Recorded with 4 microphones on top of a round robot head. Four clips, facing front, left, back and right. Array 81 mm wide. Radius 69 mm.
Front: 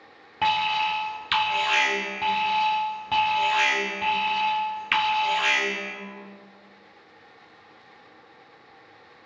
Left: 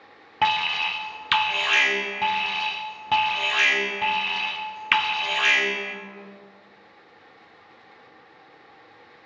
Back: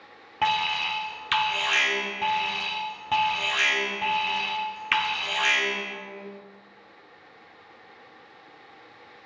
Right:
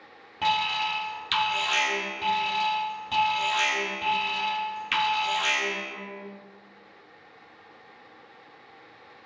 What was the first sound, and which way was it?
An alarm, 95° left.